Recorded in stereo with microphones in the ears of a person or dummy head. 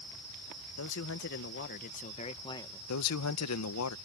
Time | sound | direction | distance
0.8 | a man speaking | 75° left (ahead or behind) | ?
2.9 | a man speaking | 85° left | ?